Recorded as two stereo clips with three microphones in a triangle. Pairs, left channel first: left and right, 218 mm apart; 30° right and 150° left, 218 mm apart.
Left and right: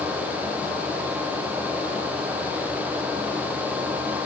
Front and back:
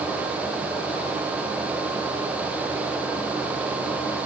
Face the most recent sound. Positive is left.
No sound to turn to.